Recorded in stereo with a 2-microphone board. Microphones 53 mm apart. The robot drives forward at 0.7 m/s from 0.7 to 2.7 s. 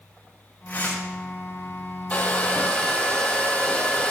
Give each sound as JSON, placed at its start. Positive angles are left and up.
{"t": 0.7, "sound": "tearing paper", "side_deg": 40, "distance_m": 3.5}
{"t": 2.1, "sound": "a hair dryer", "side_deg": 30, "distance_m": 1.5}